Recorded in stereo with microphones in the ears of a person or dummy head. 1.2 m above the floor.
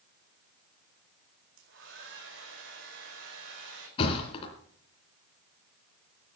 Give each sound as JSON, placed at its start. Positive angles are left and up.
{"t": 1.6, "sound": "a hair dryer", "side_deg": -70, "distance_m": 5.0}
{"t": 4.0, "sound": "a thud", "side_deg": 30, "distance_m": 3.0}